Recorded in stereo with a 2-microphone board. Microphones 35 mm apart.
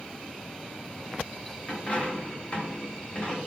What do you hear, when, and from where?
1.7 s a dropped coin: 35° left (ahead or behind), 0.6 m